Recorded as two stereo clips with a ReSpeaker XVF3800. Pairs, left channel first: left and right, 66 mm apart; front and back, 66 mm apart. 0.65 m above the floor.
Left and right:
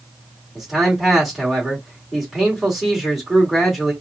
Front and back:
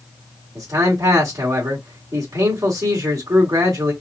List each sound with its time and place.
0.6 s a man speaking: 175° right, 2 m